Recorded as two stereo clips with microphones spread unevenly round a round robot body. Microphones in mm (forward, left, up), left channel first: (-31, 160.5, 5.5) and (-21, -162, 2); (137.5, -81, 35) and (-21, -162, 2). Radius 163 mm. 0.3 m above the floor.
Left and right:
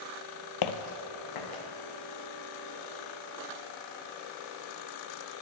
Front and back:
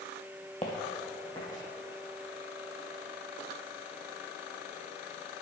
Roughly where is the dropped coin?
No dropped coin in this recording.